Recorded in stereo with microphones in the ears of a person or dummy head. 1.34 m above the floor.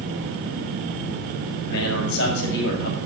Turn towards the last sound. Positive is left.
turn(degrees=70)  # may be behind; listen again after turning